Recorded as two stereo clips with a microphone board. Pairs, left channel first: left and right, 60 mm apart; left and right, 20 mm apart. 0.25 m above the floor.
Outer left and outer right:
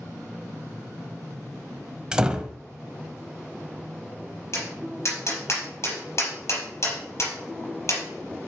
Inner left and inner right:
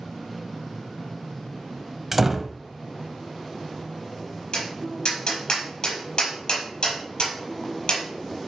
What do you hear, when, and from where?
2.1 s a door slam: 10° right (ahead or behind), 0.8 m
4.5 s tapping: 50° left (ahead or behind), 5 m